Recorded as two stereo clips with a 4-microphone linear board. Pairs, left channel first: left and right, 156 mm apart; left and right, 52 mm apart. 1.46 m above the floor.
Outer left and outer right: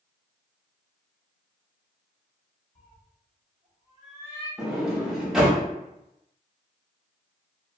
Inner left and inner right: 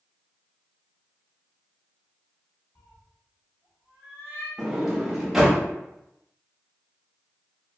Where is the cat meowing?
60° left (ahead or behind), 1.8 m.